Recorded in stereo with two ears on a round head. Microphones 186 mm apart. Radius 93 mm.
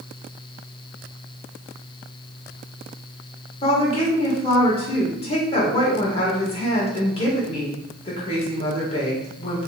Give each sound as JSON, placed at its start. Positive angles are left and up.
{"t": 3.6, "sound": "a woman speaking", "side_deg": 30, "distance_m": 1.7}